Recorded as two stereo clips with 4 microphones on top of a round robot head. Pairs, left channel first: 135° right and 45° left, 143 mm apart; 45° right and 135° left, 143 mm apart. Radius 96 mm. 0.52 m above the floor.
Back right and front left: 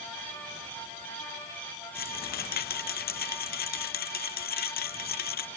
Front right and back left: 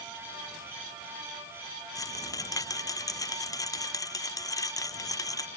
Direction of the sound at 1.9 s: 115° right.